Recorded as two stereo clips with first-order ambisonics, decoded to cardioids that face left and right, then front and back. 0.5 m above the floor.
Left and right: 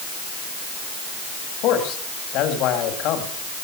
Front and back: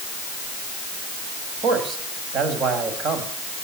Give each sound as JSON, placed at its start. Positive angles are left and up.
{"t": 1.6, "sound": "a man speaking", "azimuth_deg": 125, "distance_m": 3.5}